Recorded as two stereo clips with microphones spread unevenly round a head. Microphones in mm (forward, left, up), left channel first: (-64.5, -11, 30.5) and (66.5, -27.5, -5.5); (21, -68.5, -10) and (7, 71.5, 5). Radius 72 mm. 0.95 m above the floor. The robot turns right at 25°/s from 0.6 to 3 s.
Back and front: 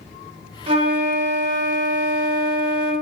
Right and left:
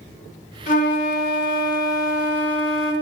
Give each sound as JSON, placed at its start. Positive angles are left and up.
{"t": 0.7, "sound": "a flute", "azimuth_deg": -50, "distance_m": 0.9}